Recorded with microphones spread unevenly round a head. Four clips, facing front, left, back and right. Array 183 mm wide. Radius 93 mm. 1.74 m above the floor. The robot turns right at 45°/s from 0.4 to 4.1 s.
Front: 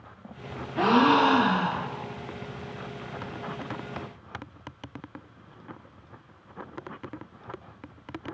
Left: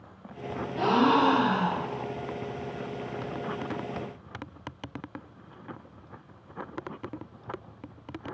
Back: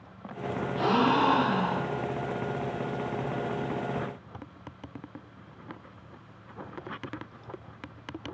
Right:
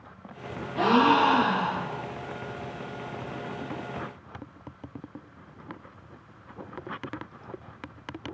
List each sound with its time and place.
0.8 s a gasp: 35° right, 2 m; by 2.1 s 25° left, 2 m